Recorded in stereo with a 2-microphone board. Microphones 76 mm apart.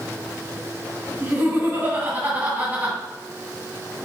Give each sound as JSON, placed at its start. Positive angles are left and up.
{"t": 1.2, "sound": "laughter", "side_deg": -25, "distance_m": 2.5}